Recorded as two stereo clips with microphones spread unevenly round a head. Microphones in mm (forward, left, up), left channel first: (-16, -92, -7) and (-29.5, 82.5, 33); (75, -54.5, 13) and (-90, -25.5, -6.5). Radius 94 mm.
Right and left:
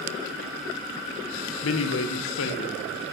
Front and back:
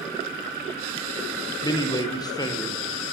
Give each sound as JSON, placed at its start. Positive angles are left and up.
{"t": 1.6, "sound": "a man speaking", "azimuth_deg": -80, "distance_m": 0.6}